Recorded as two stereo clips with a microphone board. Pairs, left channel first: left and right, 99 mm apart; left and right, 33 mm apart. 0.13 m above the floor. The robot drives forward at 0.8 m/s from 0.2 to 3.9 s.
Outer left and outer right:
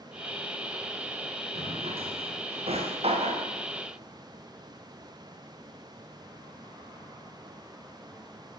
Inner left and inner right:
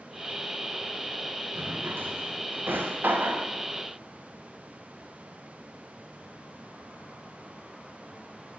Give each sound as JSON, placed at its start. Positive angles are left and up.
{"t": 1.6, "sound": "a drawer", "side_deg": -85, "distance_m": 6.0}